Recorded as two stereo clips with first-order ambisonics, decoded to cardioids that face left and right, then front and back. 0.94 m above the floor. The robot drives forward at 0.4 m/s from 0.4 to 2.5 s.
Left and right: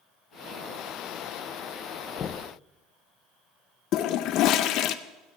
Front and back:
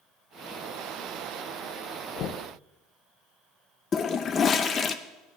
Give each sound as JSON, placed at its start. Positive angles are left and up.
{"t": 2.2, "sound": "knocking", "azimuth_deg": 35, "distance_m": 0.6}
{"t": 3.9, "sound": "a toilet flushing", "azimuth_deg": 60, "distance_m": 0.5}